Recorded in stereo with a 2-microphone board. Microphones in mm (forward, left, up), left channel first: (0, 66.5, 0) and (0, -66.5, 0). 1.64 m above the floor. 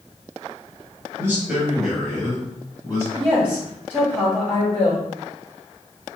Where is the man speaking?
20° right (ahead or behind), 1.4 m; by 3.0 s 30° left (ahead or behind), 2.5 m.